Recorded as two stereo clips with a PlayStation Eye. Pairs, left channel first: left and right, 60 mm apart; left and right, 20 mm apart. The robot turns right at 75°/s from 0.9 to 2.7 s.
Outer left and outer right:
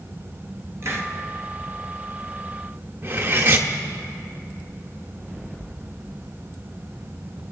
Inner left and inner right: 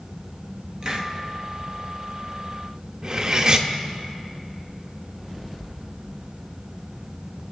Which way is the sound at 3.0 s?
35° right (ahead or behind).